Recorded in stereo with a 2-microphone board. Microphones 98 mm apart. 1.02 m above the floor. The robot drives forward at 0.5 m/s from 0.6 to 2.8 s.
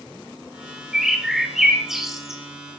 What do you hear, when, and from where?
0.9 s a bird: 5° right (ahead or behind), 2 m